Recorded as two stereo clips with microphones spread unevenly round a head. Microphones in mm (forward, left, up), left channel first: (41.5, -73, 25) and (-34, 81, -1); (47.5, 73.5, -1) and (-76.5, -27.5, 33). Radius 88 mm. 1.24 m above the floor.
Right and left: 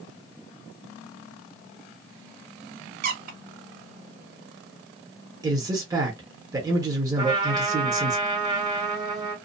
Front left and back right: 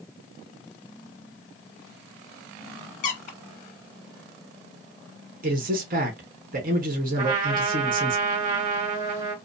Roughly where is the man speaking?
Behind.